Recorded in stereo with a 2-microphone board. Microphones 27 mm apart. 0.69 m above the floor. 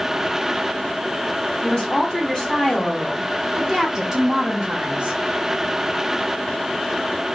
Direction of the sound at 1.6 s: 55° left (ahead or behind).